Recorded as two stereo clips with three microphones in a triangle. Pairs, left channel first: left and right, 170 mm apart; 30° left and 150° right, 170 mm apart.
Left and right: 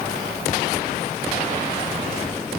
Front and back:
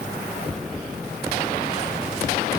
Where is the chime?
I don't hear a chime.